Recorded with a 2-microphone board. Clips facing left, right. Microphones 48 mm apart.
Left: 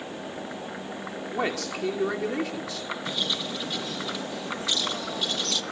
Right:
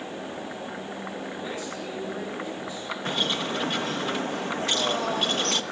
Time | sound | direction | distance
1.3 | a man speaking | 80° left | 5.5 m
3.0 | a bird | 45° right (ahead or behind) | 1.1 m